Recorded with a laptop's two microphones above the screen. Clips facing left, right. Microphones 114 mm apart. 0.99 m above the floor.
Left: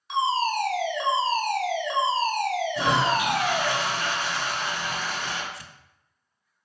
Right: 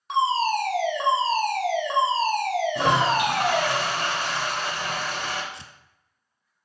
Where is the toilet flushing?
60° right (ahead or behind), 1.2 m.